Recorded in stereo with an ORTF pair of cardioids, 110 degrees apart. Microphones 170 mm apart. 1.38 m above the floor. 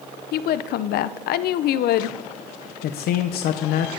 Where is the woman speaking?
70° left, 0.7 m.